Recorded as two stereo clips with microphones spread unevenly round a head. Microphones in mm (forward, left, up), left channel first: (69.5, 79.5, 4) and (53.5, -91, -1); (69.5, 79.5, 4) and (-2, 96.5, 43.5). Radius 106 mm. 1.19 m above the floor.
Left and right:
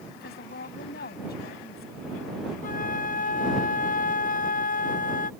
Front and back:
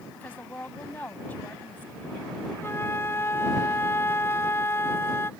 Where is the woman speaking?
55° left.